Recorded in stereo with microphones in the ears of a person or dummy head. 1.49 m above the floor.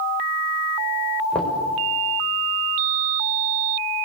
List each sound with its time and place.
1.3 s knocking: 5° left (ahead or behind), 4.5 m